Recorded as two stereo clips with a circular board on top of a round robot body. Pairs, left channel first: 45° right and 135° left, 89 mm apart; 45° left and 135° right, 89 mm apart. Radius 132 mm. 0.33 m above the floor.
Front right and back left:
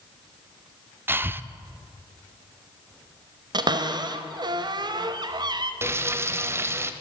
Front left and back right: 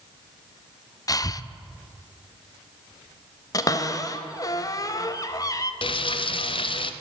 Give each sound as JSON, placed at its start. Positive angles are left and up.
{"t": 1.1, "sound": "breathing", "azimuth_deg": 75, "distance_m": 0.6}
{"t": 3.5, "sound": "a cupboard door", "azimuth_deg": 95, "distance_m": 0.7}
{"t": 5.8, "sound": "frying", "azimuth_deg": 70, "distance_m": 0.6}